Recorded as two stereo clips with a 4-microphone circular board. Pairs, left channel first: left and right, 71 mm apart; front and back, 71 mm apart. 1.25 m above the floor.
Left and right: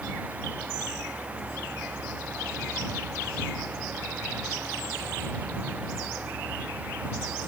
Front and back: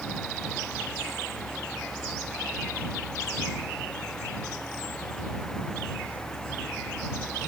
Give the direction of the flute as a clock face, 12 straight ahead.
I don't hear a flute.